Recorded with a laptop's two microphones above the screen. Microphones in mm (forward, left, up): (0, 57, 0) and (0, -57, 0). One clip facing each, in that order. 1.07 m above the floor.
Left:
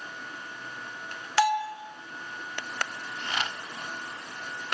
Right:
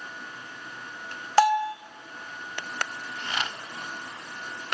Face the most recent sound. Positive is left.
turn(degrees=-50)  # may be behind; listen again after turning